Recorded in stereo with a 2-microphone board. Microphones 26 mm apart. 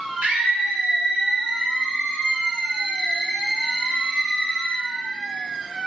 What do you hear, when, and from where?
0.2 s a scream: 70° right (ahead or behind), 2.5 m; by 4.8 s 35° right (ahead or behind), 5 m